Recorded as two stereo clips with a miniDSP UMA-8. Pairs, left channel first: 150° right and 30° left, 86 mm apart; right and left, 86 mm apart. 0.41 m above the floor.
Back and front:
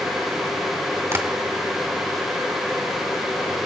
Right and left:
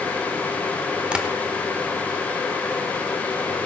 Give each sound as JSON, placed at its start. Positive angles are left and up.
{"t": 1.1, "sound": "tapping", "azimuth_deg": 25, "distance_m": 1.5}